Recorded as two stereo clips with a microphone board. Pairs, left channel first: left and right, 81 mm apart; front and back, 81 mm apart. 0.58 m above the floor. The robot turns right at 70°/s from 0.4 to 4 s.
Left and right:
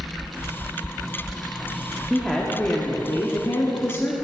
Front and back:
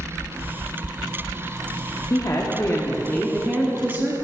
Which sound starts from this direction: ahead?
A woman speaking, at 2.1 s.